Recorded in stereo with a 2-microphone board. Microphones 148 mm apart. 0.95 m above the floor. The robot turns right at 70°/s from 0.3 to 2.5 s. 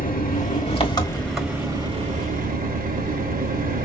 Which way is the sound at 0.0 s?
105° left.